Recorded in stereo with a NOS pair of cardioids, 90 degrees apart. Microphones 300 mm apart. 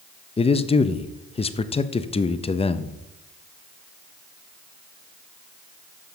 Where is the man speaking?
20° left, 0.6 m.